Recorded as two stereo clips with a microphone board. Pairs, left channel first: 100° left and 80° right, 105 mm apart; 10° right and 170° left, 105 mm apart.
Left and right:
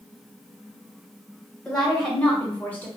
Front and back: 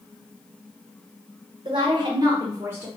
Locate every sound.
1.6 s a woman speaking: 175° right, 1.3 m; by 2.9 s 125° left, 0.8 m